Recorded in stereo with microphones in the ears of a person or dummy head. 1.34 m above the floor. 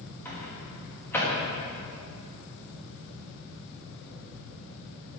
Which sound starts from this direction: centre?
A microwave, at 0.2 s.